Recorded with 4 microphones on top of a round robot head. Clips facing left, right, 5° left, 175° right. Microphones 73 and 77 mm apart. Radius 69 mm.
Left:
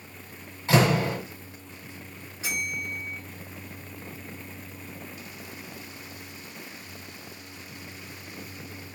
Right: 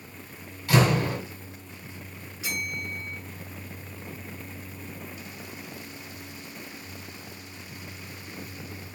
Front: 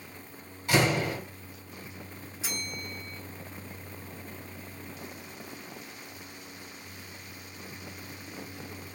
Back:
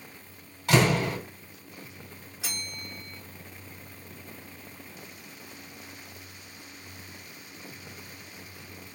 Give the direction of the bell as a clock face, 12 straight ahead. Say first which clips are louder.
Left 1 dB, front 2 dB; 7 o'clock.